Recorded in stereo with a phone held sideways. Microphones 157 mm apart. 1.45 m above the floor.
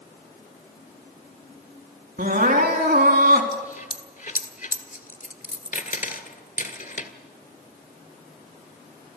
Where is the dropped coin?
60° left (ahead or behind), 2.0 m.